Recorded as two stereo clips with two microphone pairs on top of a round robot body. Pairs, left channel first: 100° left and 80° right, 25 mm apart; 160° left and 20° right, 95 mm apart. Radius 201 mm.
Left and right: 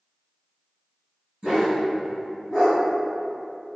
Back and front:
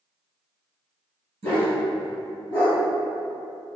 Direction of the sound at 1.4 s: 40° right.